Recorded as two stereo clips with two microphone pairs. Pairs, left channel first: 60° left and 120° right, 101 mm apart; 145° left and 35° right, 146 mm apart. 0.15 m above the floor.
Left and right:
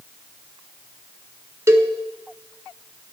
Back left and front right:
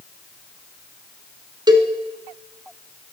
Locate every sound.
1.7 s a cowbell: 75° right, 1.0 m